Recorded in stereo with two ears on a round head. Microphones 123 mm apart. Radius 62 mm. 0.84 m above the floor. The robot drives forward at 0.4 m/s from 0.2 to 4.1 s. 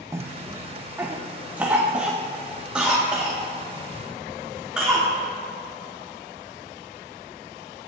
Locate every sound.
0.1 s a cough: 20° right (ahead or behind), 0.6 m; by 5.2 s 5° right (ahead or behind), 1.8 m